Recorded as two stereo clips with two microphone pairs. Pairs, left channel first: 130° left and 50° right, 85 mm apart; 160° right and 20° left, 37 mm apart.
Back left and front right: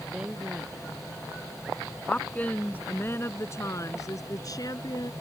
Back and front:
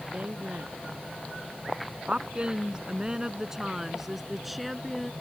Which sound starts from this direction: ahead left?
A woman speaking, at 0.1 s.